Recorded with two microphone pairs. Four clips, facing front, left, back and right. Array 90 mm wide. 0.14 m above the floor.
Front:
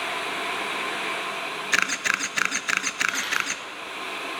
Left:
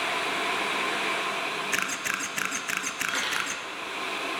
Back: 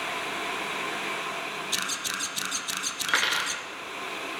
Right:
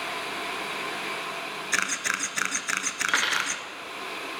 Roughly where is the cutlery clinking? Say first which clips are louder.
Right 5 dB, back 1 dB; behind right.